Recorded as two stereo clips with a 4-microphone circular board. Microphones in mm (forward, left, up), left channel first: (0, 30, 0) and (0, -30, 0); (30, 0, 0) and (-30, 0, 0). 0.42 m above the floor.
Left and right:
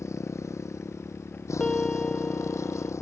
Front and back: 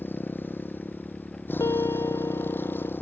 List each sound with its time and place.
0.0 s a motorcycle: 55° left
1.6 s a piano: 15° left